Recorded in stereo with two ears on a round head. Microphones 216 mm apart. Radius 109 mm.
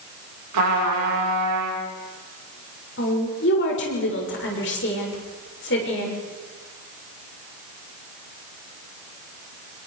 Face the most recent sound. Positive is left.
turn(degrees=50)  # may be behind; listen again after turning